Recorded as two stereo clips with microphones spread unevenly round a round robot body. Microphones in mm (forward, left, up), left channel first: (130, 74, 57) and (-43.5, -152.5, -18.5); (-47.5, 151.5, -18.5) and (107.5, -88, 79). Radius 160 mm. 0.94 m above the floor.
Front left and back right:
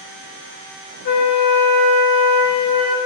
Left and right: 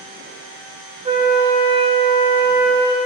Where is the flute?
5° left, 0.5 m.